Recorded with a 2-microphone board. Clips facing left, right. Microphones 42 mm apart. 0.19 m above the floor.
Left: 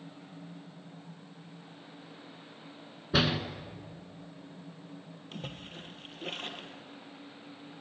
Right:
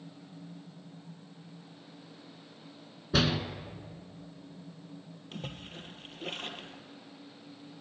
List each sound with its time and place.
3.1 s a door slam: 10° left (ahead or behind), 1.4 m
5.3 s a splash: centre (ahead or behind), 1.5 m